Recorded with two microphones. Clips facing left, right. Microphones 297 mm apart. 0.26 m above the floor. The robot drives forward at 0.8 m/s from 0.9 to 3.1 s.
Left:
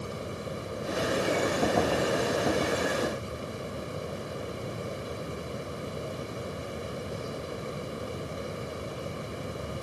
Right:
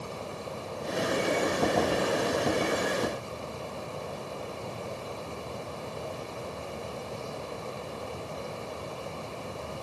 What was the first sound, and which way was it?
Only background noise.